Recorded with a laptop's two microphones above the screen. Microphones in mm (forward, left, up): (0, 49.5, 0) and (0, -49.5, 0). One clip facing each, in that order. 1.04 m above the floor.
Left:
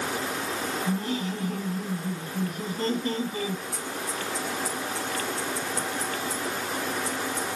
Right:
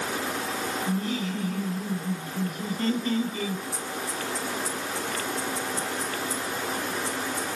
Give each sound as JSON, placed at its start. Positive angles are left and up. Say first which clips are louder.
{"t": 0.8, "sound": "laughter", "louder": "even", "side_deg": 45, "distance_m": 7.0}
{"t": 3.7, "sound": "scissors", "louder": "even", "side_deg": 80, "distance_m": 7.5}